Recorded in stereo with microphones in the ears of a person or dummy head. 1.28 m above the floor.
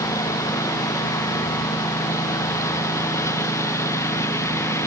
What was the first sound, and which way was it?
A lawn mower, 20° left (ahead or behind).